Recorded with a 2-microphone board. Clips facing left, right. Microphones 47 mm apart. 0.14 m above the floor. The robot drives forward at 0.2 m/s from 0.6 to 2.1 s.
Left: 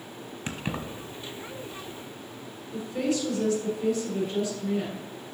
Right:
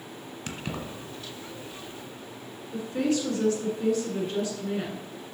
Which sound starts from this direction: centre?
Keys jangling, at 0.5 s.